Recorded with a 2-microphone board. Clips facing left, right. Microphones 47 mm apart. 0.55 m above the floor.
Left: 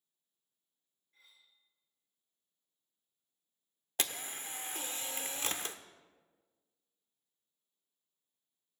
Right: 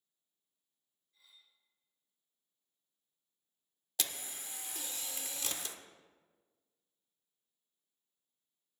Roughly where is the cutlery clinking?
Left.